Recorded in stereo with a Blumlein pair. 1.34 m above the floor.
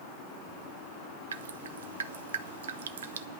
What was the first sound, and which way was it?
Dripping, 65° right.